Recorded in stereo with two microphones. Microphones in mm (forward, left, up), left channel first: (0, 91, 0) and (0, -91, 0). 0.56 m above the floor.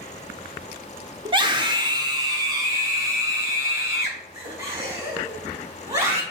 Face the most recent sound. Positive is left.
turn(degrees=-15)  # may be behind; listen again after turning